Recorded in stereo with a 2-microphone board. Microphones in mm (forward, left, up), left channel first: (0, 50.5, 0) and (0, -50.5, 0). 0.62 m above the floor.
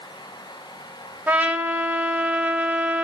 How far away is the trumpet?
About 0.7 m.